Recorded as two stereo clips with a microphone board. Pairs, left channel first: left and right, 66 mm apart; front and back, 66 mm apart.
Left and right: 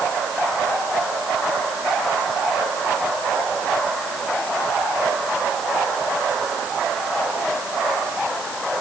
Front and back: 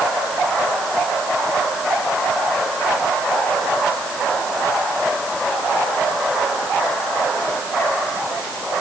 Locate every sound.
Only background noise.